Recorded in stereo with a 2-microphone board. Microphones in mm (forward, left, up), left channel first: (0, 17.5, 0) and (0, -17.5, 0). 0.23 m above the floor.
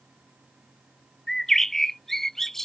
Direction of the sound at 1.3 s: 10° left (ahead or behind).